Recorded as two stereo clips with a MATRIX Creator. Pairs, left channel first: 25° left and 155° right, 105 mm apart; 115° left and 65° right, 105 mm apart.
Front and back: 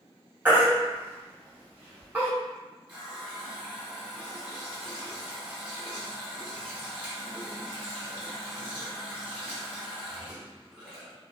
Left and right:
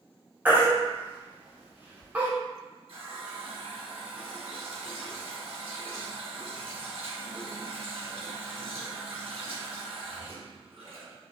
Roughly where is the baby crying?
Behind right.